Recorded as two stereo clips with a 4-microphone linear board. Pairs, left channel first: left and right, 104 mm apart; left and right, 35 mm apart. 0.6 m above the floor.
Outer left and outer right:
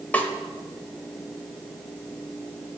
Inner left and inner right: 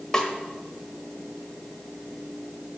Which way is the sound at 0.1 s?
15° left (ahead or behind).